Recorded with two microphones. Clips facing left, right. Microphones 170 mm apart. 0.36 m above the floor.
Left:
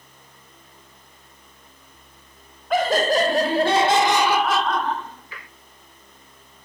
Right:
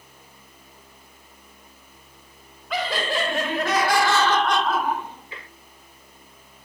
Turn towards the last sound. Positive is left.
turn(degrees=-30)  # may be behind; listen again after turning